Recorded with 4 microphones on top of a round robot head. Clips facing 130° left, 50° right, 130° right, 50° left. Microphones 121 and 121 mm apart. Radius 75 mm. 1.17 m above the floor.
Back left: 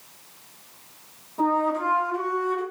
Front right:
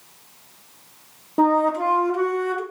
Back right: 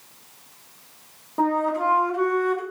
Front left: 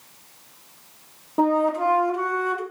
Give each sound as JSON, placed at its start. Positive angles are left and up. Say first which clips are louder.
{"t": 1.4, "sound": "a flute", "louder": "front right 5 dB, front left 2 dB", "azimuth_deg": -20, "distance_m": 1.1}